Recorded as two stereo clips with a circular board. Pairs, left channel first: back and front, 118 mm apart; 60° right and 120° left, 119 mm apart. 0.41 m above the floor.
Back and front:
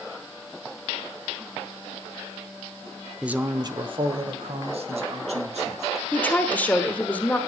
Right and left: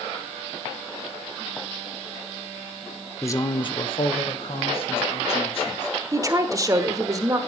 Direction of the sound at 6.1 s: 120° left.